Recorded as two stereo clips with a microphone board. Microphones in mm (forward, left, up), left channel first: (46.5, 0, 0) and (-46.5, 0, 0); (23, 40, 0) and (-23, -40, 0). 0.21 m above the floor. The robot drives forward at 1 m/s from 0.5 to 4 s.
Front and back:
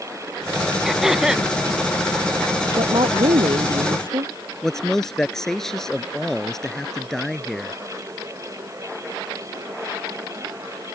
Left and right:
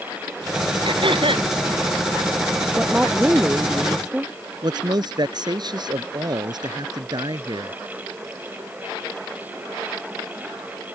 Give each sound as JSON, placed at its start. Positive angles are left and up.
{"t": 0.8, "sound": "throat clearing", "azimuth_deg": -95}
{"t": 2.8, "sound": "a woman speaking", "azimuth_deg": 165}
{"t": 4.6, "sound": "a man speaking", "azimuth_deg": -85}